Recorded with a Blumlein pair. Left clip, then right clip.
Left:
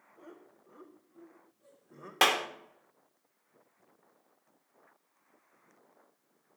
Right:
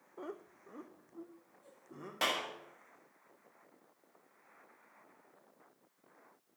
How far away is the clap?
About 1.3 m.